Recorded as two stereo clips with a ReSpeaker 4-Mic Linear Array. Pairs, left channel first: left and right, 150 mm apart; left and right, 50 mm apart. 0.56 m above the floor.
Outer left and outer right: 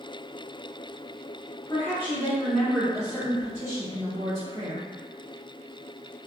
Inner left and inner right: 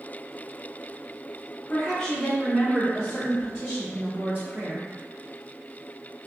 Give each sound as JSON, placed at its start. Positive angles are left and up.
{"t": 1.7, "sound": "a woman speaking", "side_deg": 20, "distance_m": 1.0}